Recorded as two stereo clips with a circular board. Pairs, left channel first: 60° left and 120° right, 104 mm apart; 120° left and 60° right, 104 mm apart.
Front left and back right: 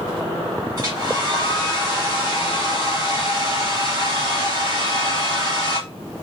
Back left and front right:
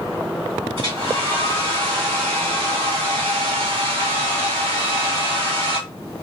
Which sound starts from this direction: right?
A hair dryer, at 0.8 s.